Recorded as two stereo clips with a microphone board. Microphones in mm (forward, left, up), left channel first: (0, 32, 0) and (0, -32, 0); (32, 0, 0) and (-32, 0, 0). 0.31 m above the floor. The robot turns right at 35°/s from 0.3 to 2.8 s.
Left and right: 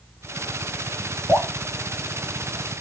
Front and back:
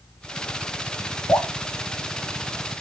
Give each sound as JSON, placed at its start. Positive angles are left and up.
{"t": 1.3, "sound": "dripping", "azimuth_deg": 20, "distance_m": 1.4}